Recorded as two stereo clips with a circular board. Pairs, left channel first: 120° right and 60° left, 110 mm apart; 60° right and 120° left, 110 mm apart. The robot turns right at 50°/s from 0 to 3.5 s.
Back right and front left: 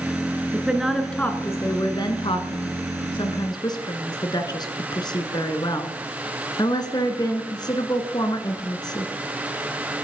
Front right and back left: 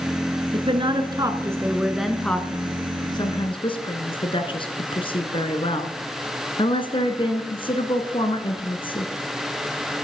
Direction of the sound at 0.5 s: 130° left.